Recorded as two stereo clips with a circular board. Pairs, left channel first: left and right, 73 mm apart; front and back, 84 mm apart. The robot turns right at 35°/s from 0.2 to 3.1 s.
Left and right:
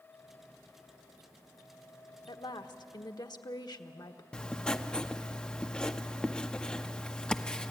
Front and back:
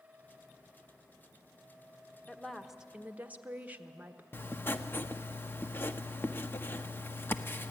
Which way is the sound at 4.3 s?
25° left.